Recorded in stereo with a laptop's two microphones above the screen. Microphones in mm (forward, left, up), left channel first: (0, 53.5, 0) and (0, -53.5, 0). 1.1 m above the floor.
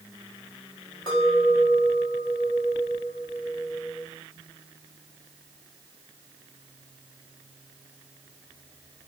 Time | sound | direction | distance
1.1 | a clink | 40° left (ahead or behind) | 2 m